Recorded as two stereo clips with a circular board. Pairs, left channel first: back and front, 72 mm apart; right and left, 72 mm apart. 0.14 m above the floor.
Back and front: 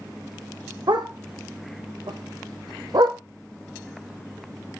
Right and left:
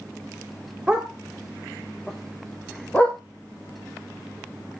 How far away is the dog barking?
About 2.5 m.